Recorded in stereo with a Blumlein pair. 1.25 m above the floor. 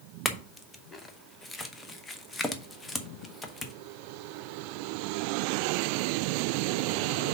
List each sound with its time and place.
0.2 s a clink: 10° left, 0.8 m